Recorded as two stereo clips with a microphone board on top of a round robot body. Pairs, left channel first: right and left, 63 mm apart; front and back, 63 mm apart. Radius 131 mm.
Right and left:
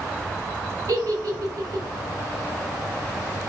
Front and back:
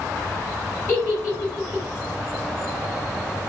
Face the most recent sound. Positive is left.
turn(degrees=50)